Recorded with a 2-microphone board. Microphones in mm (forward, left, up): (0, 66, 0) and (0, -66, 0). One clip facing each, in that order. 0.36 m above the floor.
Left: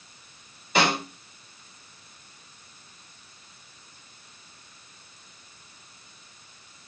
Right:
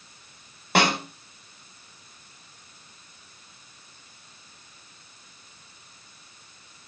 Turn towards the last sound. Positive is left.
turn(degrees=-65)  # may be behind; listen again after turning